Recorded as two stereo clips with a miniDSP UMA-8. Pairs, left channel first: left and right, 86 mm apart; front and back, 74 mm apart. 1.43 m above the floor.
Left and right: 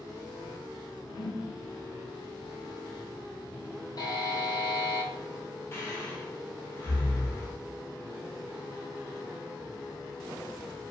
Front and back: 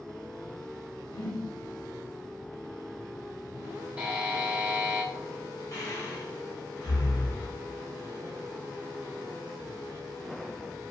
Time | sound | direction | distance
1.1 | a whoosh | 55° right | 1.6 m
4.0 | a buzzer | 110° left | 0.9 m
5.7 | breathing | 30° left | 1.0 m